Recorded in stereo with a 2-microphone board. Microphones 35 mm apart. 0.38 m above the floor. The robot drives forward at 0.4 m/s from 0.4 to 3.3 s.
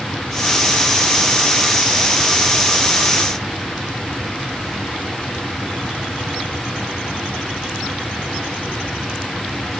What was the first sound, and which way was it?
Only background noise.